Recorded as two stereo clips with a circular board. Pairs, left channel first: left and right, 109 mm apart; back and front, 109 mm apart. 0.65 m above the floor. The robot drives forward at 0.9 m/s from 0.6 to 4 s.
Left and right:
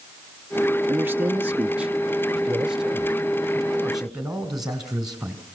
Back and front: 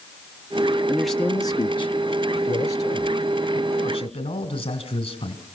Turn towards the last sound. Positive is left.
turn(degrees=-175)